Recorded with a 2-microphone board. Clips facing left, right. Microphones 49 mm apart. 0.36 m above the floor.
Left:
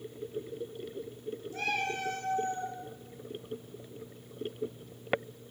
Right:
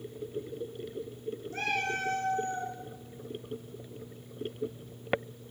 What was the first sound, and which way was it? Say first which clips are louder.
A cat meowing: right 1 dB; 50° right (ahead or behind).